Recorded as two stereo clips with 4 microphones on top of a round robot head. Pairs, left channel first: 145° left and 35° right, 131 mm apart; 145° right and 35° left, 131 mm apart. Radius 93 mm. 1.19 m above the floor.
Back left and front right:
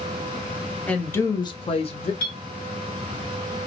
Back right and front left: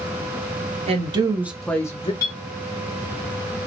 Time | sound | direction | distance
0.9 | a woman speaking | 65° left | 0.9 m
2.2 | a clink | 150° left | 1.1 m